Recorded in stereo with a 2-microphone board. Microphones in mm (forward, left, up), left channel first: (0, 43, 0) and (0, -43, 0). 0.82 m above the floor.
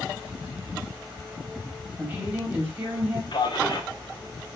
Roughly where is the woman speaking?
Right.